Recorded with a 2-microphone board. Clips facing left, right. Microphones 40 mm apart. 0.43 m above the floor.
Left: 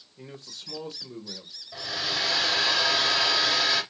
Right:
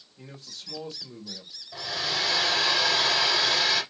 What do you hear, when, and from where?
0.2 s a man speaking: 15° left (ahead or behind), 1.2 m
1.7 s a hair dryer: 5° left (ahead or behind), 2 m